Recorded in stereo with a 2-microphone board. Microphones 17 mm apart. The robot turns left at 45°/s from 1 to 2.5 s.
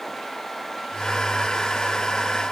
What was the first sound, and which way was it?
Only background noise.